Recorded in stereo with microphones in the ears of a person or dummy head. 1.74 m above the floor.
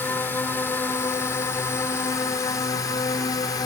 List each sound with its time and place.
0.0 s a drone: 10° left (ahead or behind); by 3.7 s 25° left (ahead or behind)